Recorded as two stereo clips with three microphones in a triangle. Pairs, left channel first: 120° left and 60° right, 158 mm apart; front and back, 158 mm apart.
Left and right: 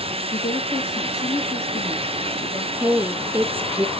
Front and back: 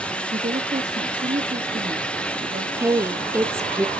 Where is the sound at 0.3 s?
170° left, 2.5 m.